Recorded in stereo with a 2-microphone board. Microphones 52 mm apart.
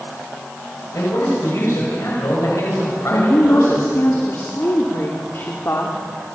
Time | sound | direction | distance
0.9 | a man speaking | 75° left (ahead or behind) | 8 m
3.1 | a woman speaking | 55° left (ahead or behind) | 2.5 m